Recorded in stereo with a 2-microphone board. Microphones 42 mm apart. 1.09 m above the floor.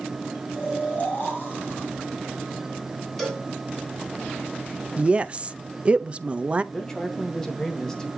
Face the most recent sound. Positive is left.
turn(degrees=15)  # may be behind; listen again after turning